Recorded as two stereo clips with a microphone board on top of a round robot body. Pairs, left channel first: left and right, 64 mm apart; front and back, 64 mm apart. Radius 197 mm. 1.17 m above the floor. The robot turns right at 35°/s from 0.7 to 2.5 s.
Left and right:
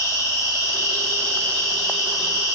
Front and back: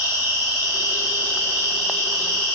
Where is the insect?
135° left, 3.5 m; by 2.6 s 160° right, 3.5 m.